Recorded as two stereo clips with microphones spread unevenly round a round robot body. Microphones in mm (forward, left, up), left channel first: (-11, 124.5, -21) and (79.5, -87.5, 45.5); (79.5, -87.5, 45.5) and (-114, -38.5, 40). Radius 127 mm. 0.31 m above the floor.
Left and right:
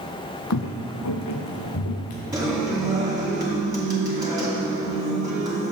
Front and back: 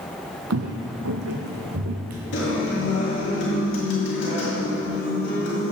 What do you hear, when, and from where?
0.5 s footsteps: 150° left, 0.7 m; by 2.2 s 145° left, 1.6 m
2.3 s a guitar: 15° left, 2.5 m